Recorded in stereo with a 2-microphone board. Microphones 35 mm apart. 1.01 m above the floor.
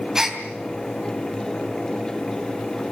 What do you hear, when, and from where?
0.1 s a gasp: 15° right (ahead or behind), 3 m